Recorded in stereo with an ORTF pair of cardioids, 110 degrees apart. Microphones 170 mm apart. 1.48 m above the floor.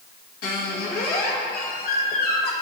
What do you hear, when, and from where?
0.4 s a squeak: 70° left, 1.7 m